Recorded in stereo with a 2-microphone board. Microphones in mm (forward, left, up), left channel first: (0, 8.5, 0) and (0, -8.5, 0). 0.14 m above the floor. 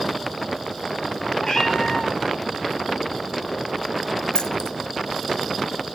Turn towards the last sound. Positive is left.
turn(degrees=45)  # may be behind; listen again after turning